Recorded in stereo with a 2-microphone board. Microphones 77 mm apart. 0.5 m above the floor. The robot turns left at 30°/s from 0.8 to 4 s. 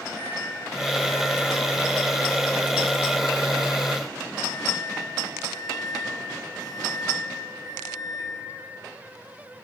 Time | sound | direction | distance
0.1 | a microwave | 20° right | 3.5 m